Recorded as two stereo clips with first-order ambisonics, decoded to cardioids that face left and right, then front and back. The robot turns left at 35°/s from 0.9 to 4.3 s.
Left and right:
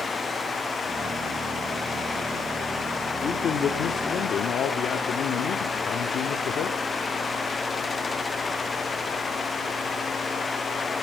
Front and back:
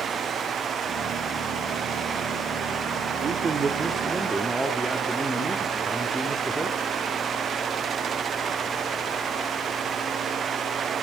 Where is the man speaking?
135° left, 1.0 m; by 6.8 s 95° left, 1.0 m.